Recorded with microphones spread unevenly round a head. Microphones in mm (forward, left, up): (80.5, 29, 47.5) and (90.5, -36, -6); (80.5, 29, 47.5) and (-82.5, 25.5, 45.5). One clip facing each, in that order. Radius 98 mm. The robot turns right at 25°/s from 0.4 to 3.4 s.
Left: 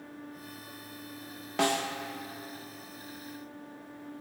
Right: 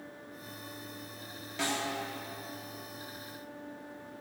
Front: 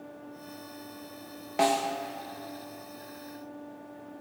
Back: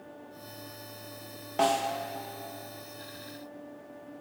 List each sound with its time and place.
1.6 s a snare drum: 80° left, 1.1 m; by 2.0 s 90° left, 1.1 m